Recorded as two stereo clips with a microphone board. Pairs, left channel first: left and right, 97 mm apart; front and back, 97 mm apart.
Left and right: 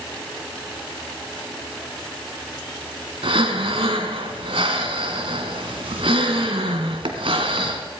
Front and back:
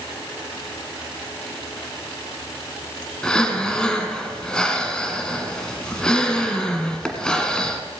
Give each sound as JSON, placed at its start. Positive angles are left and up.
{"t": 3.2, "sound": "breathing", "azimuth_deg": -85, "distance_m": 1.4}